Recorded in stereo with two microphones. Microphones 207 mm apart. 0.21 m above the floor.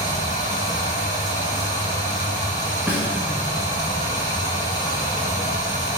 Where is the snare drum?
10° right (ahead or behind), 1.8 m.